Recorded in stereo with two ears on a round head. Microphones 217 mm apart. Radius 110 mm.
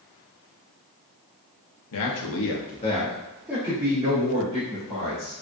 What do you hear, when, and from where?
1.9 s a man speaking: 70° left (ahead or behind), 0.8 m; by 5.3 s 30° right (ahead or behind), 2 m